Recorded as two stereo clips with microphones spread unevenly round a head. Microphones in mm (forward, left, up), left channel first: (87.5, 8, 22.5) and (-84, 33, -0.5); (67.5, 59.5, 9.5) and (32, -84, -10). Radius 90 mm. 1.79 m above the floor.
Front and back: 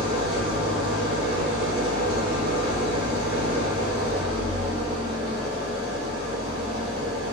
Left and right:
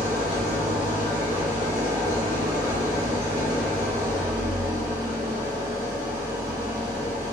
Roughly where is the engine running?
Left.